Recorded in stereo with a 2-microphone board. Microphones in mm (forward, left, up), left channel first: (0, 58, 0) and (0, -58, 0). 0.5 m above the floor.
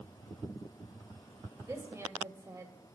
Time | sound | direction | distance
1.6 | a woman speaking | 25° right (ahead or behind) | 2 m